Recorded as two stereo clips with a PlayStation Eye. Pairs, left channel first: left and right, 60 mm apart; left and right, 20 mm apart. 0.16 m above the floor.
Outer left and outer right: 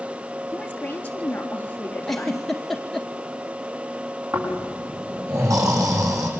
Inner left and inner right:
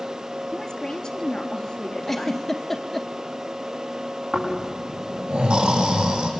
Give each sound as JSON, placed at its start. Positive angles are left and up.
{"t": 0.5, "sound": "a woman speaking", "side_deg": 25, "distance_m": 3.0}
{"t": 2.1, "sound": "a giggle", "side_deg": 5, "distance_m": 1.9}
{"t": 4.3, "sound": "snoring", "side_deg": -75, "distance_m": 7.5}